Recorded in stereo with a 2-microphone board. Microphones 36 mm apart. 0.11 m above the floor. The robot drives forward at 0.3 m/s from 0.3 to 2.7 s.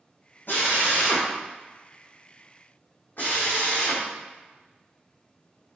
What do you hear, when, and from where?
0.5 s a drill: 60° left (ahead or behind), 3.5 m; by 4.0 s 55° left (ahead or behind), 4 m